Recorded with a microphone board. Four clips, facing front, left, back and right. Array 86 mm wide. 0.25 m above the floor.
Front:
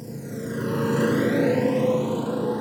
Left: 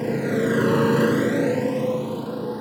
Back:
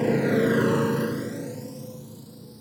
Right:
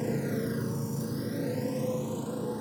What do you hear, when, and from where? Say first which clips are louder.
0.0 s a motorcycle: left 9 dB, back 12 dB; 155° left; by 2.6 s 20° left